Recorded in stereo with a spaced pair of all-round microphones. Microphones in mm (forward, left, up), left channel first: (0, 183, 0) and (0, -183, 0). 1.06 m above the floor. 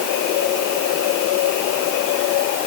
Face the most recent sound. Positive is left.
No sound to turn to.